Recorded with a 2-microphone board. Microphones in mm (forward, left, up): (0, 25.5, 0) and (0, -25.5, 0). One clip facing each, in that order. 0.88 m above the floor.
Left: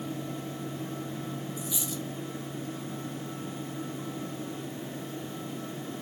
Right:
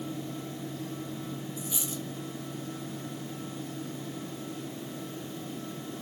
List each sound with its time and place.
1.6 s a dropped coin: 30° right (ahead or behind), 0.9 m